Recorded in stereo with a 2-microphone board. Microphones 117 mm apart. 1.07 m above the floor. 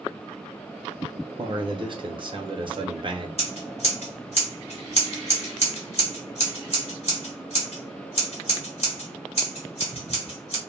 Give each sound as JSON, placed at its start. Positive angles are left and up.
{"t": 1.4, "sound": "a man speaking", "side_deg": -40, "distance_m": 0.7}
{"t": 3.4, "sound": "scissors", "side_deg": 60, "distance_m": 1.2}